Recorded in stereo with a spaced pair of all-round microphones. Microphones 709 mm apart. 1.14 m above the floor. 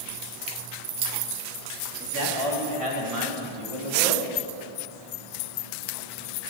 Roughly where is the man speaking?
Right.